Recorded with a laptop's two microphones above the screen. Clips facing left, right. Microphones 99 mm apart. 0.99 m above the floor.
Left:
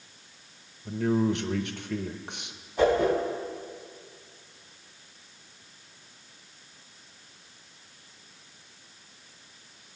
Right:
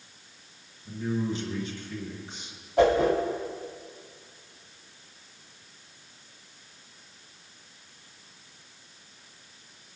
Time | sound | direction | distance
0.8 | a man speaking | 65° left (ahead or behind) | 0.7 m
2.8 | a whoosh | 85° right | 3.5 m